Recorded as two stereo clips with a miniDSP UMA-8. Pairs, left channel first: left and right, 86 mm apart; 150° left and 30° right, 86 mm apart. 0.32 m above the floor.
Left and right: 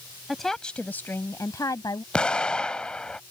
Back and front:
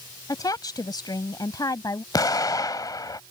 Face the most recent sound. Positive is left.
turn(degrees=165)